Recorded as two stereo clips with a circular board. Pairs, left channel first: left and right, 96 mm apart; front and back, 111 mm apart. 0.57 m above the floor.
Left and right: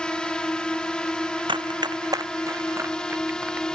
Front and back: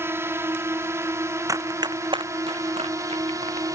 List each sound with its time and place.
0.0 s a drone: 160° left; by 3.8 s 165° left
1.5 s running footsteps: 120° right; by 3.7 s 165° right